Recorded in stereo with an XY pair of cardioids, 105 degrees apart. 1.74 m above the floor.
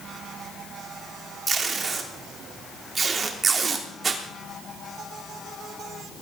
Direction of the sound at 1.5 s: 35° right.